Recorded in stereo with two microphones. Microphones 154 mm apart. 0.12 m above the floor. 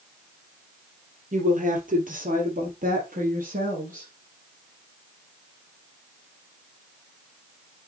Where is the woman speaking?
55° right (ahead or behind), 2.5 m; by 4.1 s 60° right (ahead or behind), 3 m.